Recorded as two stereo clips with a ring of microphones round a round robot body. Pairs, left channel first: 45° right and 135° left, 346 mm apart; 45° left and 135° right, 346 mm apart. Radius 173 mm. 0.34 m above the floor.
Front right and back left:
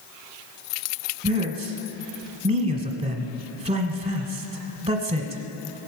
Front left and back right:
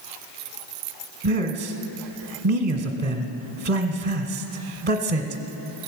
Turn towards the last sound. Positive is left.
turn(degrees=-165)